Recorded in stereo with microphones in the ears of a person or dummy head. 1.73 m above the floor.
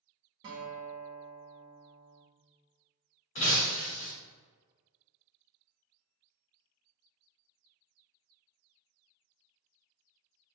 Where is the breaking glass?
40° left (ahead or behind), 1.3 m.